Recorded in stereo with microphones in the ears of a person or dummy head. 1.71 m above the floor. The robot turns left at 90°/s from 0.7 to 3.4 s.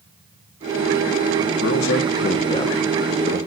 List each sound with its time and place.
1.6 s a man speaking: 60° left (ahead or behind), 1.4 m; by 3.4 s 45° right (ahead or behind), 1.4 m